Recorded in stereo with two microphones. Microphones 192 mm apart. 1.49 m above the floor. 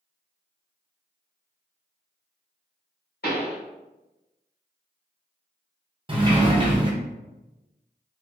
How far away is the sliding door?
About 0.7 m.